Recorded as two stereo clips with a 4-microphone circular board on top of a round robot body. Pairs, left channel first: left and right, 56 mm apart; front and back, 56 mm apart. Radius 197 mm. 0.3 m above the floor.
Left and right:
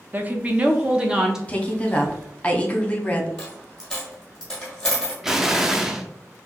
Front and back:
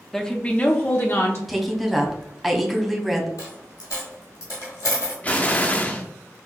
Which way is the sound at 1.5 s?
90° left.